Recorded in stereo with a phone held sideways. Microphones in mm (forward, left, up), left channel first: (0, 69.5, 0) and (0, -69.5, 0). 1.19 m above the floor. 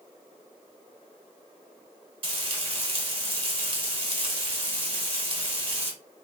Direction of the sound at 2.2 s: 40° right (ahead or behind).